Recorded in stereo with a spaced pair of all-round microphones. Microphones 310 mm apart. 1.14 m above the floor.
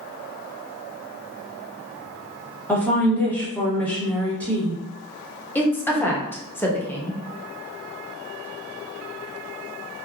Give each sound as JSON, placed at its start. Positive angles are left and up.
{"t": 2.7, "sound": "a woman speaking", "side_deg": 5, "distance_m": 0.9}
{"t": 5.5, "sound": "a woman speaking", "side_deg": 5, "distance_m": 0.6}